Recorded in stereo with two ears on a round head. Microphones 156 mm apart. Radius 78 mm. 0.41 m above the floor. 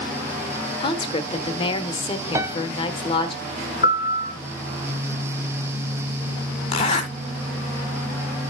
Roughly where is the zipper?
Left.